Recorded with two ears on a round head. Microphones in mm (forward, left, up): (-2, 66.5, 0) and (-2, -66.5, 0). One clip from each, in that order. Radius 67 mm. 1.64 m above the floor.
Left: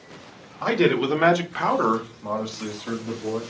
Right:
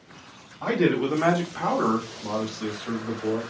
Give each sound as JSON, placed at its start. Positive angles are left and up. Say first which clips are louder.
{"t": 0.6, "sound": "a man speaking", "louder": "left 3 dB", "side_deg": 80, "distance_m": 0.7}